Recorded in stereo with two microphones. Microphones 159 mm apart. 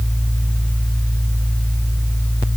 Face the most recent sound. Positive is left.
No sound to turn to.